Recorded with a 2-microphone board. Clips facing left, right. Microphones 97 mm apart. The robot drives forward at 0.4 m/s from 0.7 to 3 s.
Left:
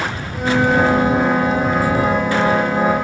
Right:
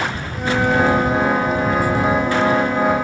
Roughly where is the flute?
Centre.